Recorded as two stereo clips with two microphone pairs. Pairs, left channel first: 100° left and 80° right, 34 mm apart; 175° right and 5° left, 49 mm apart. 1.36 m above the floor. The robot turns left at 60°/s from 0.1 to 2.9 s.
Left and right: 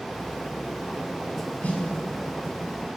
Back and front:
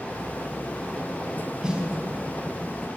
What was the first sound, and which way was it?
A snare drum, 75° left.